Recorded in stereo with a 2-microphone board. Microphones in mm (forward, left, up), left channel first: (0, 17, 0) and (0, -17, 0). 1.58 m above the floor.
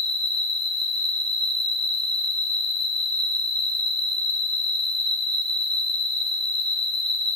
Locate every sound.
0.0 s an insect: 35° left (ahead or behind), 4 m